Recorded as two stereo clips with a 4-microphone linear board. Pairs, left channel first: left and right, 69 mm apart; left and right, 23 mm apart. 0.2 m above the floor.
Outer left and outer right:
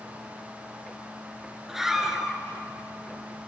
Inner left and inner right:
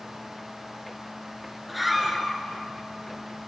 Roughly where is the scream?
Centre.